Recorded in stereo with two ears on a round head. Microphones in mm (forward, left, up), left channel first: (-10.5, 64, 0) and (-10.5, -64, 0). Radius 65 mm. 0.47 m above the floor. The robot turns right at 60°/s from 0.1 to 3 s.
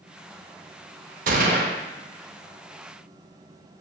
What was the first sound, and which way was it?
A gunshot, 100° right.